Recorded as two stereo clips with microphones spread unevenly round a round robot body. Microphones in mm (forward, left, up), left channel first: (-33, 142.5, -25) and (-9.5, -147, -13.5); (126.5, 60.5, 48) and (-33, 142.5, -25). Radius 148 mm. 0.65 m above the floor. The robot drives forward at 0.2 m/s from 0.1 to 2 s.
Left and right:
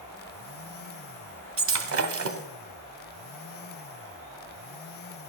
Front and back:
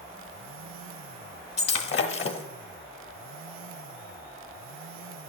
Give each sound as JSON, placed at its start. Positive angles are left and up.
{"t": 1.6, "sound": "breaking glass", "azimuth_deg": -40, "distance_m": 1.2}